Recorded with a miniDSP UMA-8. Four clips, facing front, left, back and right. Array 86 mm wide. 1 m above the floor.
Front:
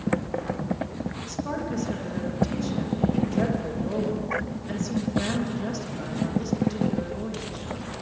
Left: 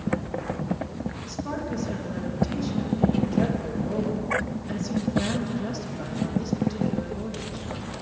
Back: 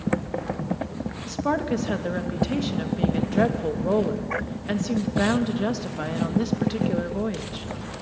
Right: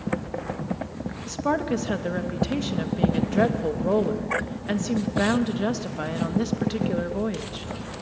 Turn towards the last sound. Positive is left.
turn(degrees=-130)